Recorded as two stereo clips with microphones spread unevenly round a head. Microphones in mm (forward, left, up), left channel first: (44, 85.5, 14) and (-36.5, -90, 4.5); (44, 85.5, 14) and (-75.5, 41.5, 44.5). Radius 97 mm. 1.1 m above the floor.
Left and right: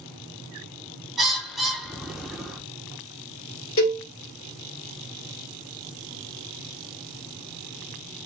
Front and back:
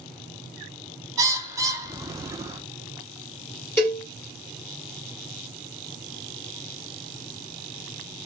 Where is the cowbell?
100° left, 2.0 m.